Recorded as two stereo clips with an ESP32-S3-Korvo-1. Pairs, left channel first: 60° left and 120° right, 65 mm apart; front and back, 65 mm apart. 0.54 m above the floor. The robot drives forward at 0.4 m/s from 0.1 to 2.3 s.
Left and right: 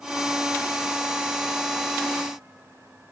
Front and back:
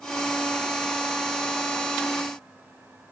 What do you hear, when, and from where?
Only background noise.